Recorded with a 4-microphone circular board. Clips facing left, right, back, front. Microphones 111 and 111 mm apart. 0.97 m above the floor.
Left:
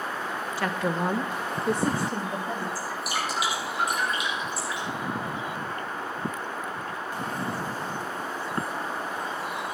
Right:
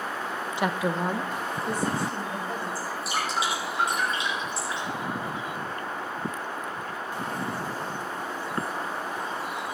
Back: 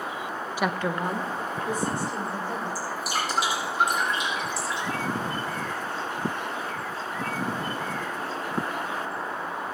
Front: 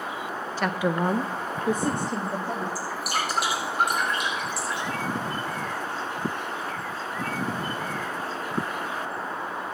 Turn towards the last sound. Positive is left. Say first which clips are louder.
# even, even
turn(degrees=-30)